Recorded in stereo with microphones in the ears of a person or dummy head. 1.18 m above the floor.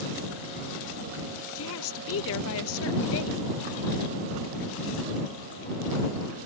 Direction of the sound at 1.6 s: 75° left (ahead or behind).